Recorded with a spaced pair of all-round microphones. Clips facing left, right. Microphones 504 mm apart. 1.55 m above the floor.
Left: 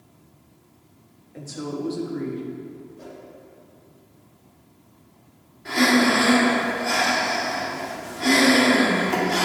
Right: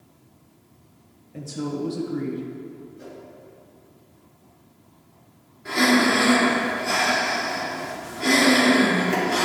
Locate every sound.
1.3 s a woman speaking: 50° right (ahead or behind), 1.3 m
3.0 s a whoosh: 65° left (ahead or behind), 3 m
5.7 s breathing: 15° left (ahead or behind), 2.0 m